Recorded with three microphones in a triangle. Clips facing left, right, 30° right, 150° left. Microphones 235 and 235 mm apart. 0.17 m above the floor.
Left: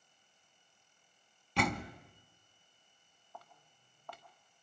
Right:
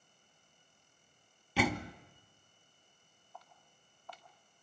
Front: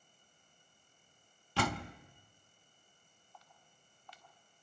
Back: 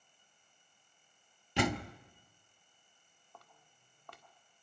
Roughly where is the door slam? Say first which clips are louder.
Right 2 dB, back 3 dB; behind.